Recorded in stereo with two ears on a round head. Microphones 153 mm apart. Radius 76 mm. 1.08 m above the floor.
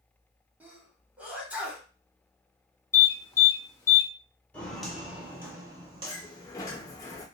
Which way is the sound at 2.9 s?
15° left (ahead or behind).